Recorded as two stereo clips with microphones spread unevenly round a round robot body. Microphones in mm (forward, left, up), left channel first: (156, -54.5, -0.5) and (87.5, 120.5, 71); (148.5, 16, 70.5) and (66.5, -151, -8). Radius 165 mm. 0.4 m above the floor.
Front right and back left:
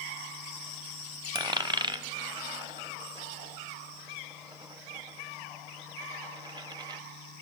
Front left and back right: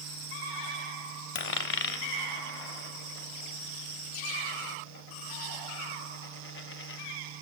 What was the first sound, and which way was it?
A dropped coin, 40° left.